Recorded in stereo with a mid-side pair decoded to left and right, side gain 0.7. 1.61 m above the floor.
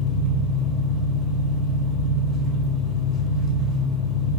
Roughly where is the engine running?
Ahead.